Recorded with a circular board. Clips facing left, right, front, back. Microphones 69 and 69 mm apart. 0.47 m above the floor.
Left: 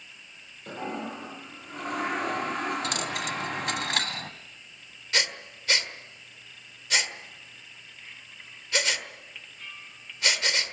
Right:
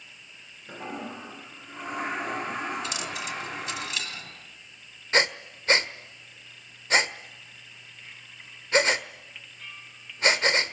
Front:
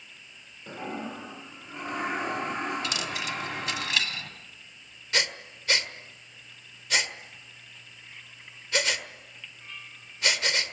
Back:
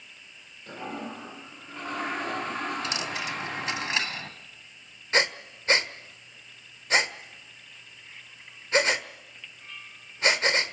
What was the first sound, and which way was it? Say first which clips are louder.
A toilet flushing: left 3 dB, front 1 dB; 70° left.